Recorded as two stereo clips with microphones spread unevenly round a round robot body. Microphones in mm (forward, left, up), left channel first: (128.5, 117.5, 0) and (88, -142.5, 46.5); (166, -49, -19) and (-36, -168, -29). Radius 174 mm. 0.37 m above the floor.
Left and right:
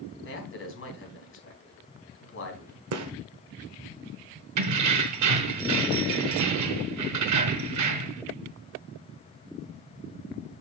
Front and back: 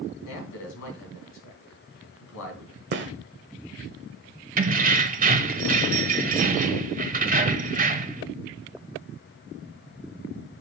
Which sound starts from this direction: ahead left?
A man speaking, at 0.2 s.